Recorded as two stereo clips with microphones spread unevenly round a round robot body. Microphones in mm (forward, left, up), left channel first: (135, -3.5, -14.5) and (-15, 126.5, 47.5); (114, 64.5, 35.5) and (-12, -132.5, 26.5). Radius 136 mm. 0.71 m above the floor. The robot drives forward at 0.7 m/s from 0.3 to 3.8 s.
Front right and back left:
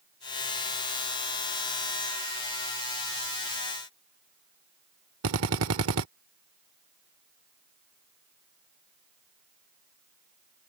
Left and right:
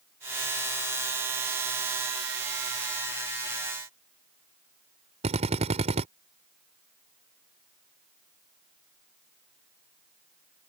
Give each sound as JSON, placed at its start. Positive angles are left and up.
{"t": 5.2, "sound": "a drill", "azimuth_deg": 175}